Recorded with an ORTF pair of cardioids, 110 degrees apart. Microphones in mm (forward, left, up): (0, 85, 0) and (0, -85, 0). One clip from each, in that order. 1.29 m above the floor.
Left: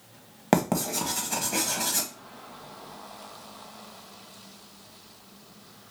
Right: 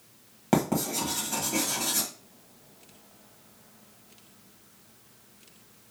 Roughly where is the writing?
Ahead left.